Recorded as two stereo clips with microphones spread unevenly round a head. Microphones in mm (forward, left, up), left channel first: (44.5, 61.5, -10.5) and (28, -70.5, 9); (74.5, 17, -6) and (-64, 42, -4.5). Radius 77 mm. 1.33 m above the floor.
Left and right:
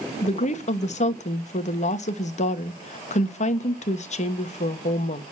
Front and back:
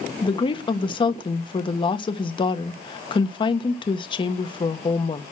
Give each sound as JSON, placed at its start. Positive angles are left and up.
{"t": 0.2, "sound": "a woman speaking", "azimuth_deg": 45, "distance_m": 1.5}